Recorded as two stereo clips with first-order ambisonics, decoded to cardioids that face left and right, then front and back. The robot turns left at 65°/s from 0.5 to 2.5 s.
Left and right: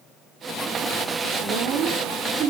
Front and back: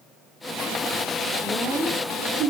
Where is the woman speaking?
70° right, 3.5 m; by 2.5 s 145° right, 3.5 m.